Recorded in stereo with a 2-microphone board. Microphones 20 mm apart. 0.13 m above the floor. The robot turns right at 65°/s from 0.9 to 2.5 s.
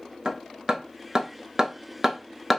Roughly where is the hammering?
Right.